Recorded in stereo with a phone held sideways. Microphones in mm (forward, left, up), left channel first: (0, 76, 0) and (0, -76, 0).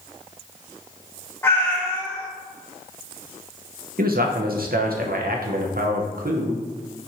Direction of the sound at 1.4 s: 15° left (ahead or behind).